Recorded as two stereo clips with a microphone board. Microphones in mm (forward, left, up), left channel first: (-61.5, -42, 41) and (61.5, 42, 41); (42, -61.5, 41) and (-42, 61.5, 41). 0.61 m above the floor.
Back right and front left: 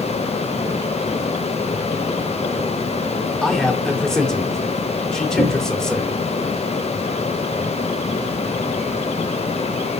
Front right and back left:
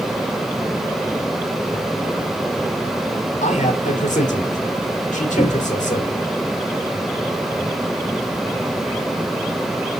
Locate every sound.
3.4 s a man speaking: 60° right, 2 m
5.4 s a cupboard door: 150° right, 4.5 m